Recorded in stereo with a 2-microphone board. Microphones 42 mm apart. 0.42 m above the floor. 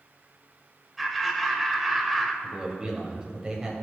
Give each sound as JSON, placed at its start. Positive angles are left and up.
{"t": 1.0, "sound": "laughter", "side_deg": 0, "distance_m": 1.7}
{"t": 2.4, "sound": "a man speaking", "side_deg": -15, "distance_m": 2.5}